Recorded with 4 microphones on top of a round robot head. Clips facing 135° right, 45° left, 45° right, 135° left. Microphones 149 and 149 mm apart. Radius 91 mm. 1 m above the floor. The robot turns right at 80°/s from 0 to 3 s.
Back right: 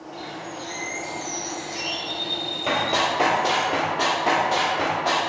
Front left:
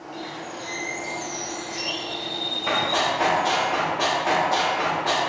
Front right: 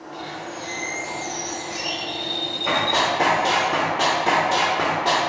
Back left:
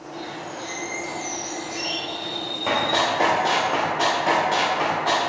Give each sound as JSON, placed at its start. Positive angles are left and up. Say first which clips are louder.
{"t": 0.1, "sound": "a bird", "louder": "front left 1 dB, front right 1 dB", "azimuth_deg": 80, "distance_m": 1.6}
{"t": 2.7, "sound": "running footsteps", "louder": "even, even", "azimuth_deg": -165, "distance_m": 1.3}